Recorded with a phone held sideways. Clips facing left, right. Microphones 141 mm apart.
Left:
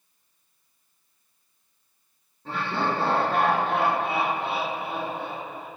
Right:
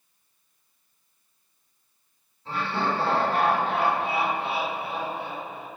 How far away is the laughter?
About 2.5 m.